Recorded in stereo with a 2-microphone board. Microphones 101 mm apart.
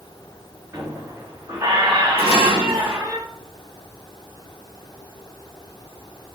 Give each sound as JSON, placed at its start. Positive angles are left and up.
{"t": 0.7, "sound": "a squeak", "side_deg": -30, "distance_m": 4.5}
{"t": 2.2, "sound": "dishes clattering", "side_deg": -80, "distance_m": 5.5}